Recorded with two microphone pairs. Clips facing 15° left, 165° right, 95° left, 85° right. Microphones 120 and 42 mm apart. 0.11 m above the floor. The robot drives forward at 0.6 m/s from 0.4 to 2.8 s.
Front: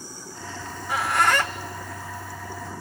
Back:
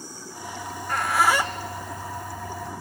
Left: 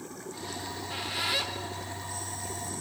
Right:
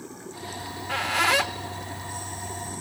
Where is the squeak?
60° right, 1.1 m; by 2.7 s 125° right, 1.2 m.